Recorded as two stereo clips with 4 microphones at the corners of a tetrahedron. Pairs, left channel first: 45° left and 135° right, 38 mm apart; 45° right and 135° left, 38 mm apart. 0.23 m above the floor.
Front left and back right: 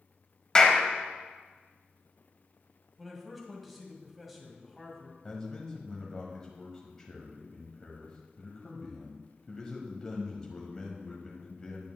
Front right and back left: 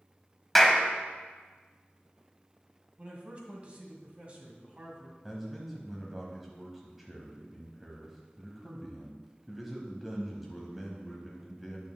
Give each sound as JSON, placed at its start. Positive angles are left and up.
{"t": 0.6, "sound": "a clap", "azimuth_deg": 30, "distance_m": 0.9}
{"t": 3.0, "sound": "a man speaking", "azimuth_deg": 140, "distance_m": 1.5}
{"t": 5.2, "sound": "a man speaking", "azimuth_deg": 65, "distance_m": 1.2}